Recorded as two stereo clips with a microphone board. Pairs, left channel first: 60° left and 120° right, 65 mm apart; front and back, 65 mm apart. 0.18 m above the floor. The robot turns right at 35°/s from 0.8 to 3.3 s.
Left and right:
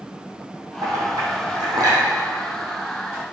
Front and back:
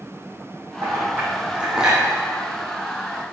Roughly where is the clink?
Behind right.